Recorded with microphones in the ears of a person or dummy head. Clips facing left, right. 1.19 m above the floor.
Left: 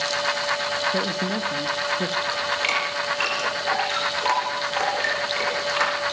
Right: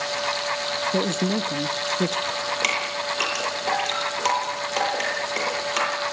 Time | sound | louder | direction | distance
0.9 | a man speaking | right 6 dB | 25° right (ahead or behind) | 0.6 m
2.3 | dripping | even | 55° right (ahead or behind) | 9 m